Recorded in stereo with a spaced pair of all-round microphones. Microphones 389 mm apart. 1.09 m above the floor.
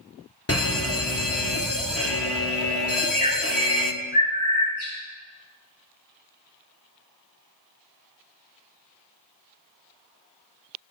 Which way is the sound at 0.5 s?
35° left (ahead or behind).